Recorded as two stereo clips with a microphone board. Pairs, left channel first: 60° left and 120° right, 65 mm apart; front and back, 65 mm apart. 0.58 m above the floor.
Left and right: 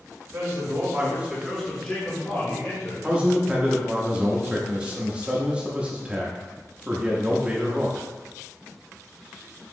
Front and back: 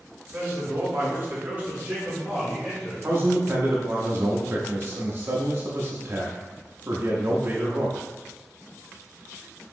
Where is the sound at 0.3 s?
130° right, 1.6 m; by 2.9 s 100° left, 2.0 m.